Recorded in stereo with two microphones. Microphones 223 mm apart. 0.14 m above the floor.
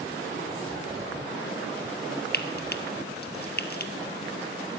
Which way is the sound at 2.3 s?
45° left (ahead or behind).